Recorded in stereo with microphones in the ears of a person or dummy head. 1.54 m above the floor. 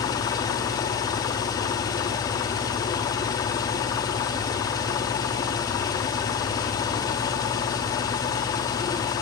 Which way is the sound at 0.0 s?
20° left (ahead or behind).